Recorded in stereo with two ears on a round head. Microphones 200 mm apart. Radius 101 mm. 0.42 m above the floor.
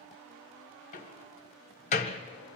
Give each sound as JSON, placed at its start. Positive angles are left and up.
{"t": 0.9, "sound": "a door slam", "side_deg": 30, "distance_m": 1.8}